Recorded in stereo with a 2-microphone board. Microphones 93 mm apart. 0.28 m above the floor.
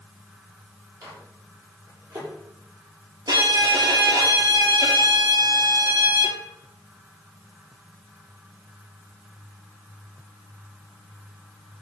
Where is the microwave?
40° right (ahead or behind), 7.5 m.